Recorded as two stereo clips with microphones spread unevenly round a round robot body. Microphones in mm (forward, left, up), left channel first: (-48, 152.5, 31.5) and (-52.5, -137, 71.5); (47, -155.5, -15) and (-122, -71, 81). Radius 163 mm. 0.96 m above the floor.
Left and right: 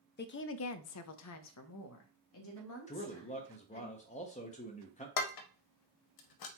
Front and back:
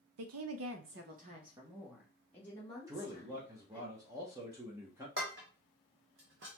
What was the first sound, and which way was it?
A woman speaking, 140° left.